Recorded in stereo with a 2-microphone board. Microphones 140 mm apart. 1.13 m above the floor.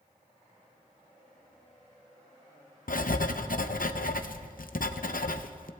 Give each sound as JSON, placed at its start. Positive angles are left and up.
{"t": 2.9, "sound": "writing", "side_deg": 80, "distance_m": 0.6}